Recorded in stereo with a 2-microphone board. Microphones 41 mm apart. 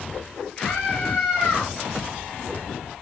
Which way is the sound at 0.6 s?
20° left (ahead or behind).